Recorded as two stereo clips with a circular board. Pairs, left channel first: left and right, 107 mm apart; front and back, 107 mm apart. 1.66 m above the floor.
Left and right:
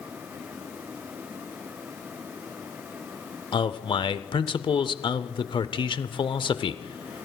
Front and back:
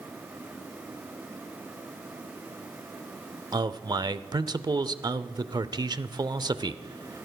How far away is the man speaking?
About 0.5 m.